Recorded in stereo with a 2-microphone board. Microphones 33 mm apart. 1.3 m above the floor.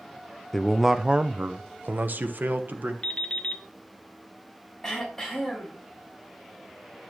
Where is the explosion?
No explosion in this recording.